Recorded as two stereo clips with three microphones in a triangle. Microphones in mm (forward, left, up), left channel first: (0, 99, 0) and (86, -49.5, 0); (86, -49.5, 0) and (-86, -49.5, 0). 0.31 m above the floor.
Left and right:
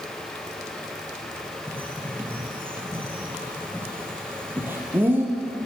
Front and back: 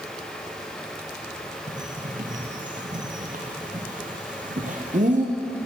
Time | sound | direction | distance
1.7 | a bird | 135° right | 2.0 m